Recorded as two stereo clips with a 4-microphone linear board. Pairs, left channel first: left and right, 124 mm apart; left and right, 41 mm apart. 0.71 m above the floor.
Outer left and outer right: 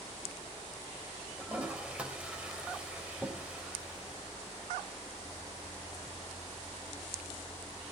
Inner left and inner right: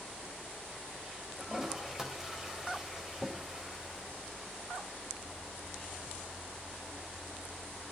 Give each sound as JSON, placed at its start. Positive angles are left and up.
{"t": 1.4, "sound": "a toilet flushing", "side_deg": -10, "distance_m": 3.5}